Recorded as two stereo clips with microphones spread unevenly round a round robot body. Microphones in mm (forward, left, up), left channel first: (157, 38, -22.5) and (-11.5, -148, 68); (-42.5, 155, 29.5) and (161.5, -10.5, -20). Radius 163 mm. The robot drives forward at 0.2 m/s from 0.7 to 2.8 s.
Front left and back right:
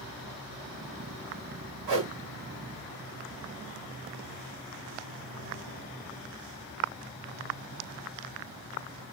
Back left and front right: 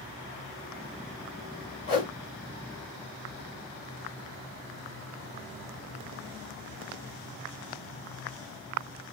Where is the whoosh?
135° right, 2.0 m; by 2.1 s 140° right, 2 m.